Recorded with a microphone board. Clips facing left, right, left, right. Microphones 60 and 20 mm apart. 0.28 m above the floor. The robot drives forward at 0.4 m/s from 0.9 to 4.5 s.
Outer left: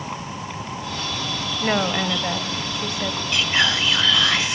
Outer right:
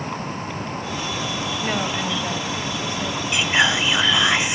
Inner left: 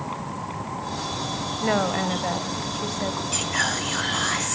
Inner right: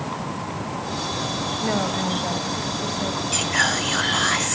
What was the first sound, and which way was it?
A woman speaking, 20° left (ahead or behind).